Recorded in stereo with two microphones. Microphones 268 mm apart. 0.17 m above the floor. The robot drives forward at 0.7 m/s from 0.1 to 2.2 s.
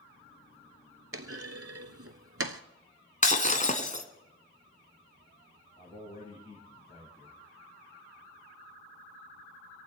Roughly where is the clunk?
Right.